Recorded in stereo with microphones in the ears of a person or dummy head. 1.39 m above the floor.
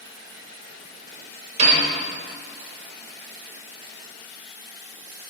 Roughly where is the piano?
Right.